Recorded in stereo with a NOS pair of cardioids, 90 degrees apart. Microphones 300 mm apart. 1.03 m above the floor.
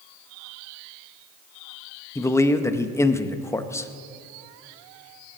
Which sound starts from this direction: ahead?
A man speaking, at 2.1 s.